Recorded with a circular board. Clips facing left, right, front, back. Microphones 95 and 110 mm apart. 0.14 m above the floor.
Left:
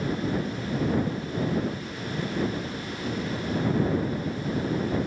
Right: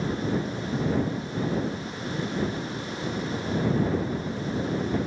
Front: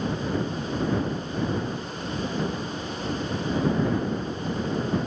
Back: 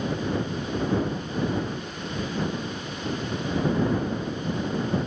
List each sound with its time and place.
Only background noise.